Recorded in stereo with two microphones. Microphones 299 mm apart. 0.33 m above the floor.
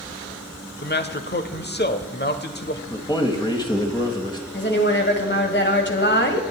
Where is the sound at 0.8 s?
35° left (ahead or behind), 1.0 m.